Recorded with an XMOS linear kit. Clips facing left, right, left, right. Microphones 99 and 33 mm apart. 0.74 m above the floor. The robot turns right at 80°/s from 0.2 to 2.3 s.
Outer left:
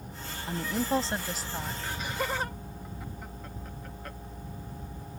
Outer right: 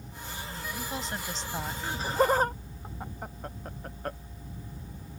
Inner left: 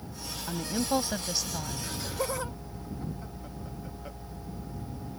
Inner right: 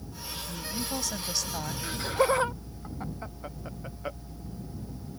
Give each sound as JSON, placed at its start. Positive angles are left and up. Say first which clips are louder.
{"t": 0.5, "sound": "a woman speaking", "louder": "outer left 10 dB, inner left 7 dB", "azimuth_deg": 100}
{"t": 1.8, "sound": "laughter", "louder": "outer right 10 dB, inner right 10 dB", "side_deg": -25}